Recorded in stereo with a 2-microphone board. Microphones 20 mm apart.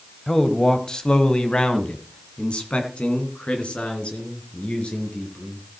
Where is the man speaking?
20° left (ahead or behind), 1.2 m; by 5.6 s 75° left (ahead or behind), 4.5 m.